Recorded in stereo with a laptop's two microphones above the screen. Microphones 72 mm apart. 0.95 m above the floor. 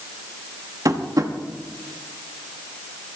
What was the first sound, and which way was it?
Tapping, 55° right (ahead or behind).